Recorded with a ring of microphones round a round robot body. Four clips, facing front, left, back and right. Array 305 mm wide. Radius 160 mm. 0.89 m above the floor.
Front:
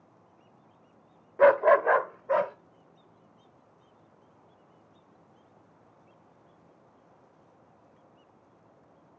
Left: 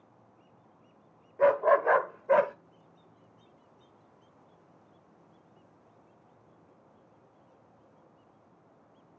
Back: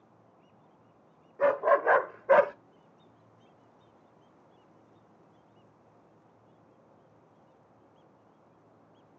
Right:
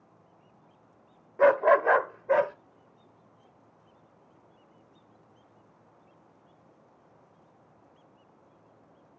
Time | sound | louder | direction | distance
1.4 | a dog barking | right 2 dB, front 5 dB | 30° right | 0.7 m